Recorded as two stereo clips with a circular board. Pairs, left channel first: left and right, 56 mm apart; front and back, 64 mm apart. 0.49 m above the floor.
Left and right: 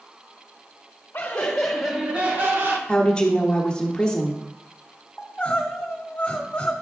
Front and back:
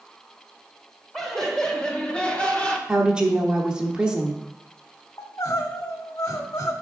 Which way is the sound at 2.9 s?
130° left.